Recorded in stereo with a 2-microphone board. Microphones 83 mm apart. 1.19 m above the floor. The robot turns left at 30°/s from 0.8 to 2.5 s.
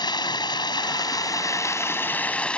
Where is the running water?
65° left; by 2.6 s 15° left.